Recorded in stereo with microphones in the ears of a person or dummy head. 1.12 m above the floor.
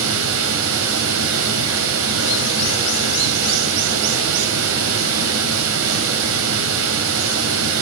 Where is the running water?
80° right, 3 m.